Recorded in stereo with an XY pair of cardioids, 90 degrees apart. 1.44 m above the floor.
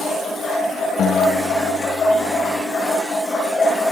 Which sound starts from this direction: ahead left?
A guitar, at 1.0 s.